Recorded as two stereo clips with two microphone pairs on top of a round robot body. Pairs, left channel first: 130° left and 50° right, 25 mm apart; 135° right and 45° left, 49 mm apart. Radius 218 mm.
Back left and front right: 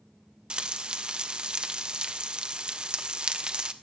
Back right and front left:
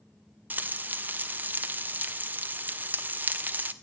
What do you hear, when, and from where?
0.5 s frying: 5° right, 2.0 m